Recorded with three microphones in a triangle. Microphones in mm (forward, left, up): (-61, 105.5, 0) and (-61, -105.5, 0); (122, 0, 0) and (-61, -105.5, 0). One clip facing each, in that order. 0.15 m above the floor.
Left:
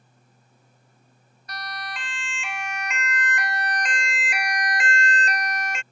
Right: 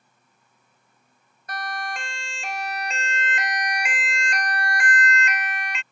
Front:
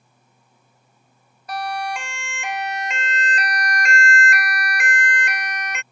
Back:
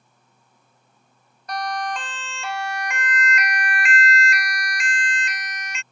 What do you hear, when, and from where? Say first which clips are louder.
1.5 s a siren: right 5 dB, front 1 dB; 55° right; by 5.8 s 55° left